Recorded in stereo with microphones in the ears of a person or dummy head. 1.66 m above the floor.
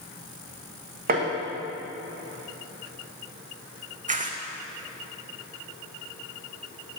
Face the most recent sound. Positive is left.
turn(degrees=-35)  # may be behind; listen again after turning